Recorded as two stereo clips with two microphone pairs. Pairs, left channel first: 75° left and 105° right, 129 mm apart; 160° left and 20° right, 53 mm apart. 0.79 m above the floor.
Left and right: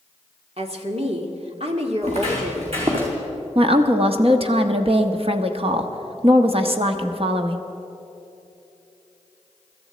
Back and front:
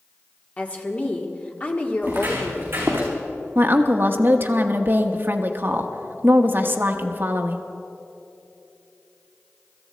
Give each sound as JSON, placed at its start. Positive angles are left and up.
{"t": 0.6, "sound": "a woman speaking", "azimuth_deg": -140, "distance_m": 1.7}
{"t": 2.0, "sound": "footsteps", "azimuth_deg": -70, "distance_m": 5.0}
{"t": 3.5, "sound": "a woman speaking", "azimuth_deg": -70, "distance_m": 0.9}